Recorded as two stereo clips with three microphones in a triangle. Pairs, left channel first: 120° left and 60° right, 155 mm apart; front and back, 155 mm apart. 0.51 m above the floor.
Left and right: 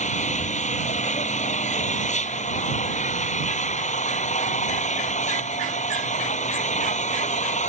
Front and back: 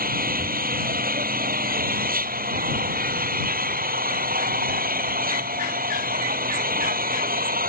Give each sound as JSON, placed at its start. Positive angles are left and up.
{"t": 0.0, "sound": "an engine running", "azimuth_deg": 160}